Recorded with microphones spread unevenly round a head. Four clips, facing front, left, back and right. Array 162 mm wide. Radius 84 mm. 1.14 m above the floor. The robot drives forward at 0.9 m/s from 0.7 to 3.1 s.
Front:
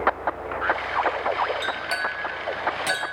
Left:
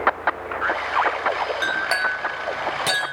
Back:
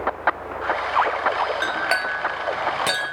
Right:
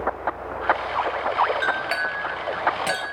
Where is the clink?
160° left, 1.5 m; by 3.1 s 170° left, 3 m.